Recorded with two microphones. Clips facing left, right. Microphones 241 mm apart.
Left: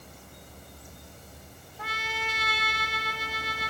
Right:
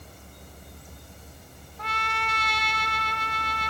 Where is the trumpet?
5° left (ahead or behind), 0.8 m.